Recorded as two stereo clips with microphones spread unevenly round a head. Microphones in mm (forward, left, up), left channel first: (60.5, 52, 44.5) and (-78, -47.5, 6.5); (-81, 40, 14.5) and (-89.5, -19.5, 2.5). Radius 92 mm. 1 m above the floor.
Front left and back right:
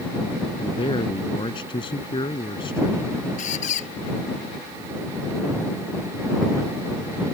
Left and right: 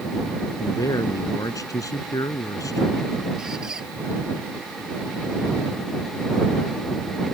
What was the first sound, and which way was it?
A man speaking, 100° left.